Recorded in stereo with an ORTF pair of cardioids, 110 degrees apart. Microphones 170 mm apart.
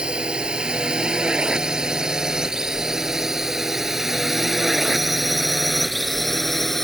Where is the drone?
5° right; by 6.8 s straight ahead.